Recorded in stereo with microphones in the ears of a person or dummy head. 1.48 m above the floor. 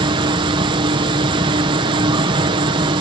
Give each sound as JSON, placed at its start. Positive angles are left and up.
{"t": 0.0, "sound": "an insect", "side_deg": -30}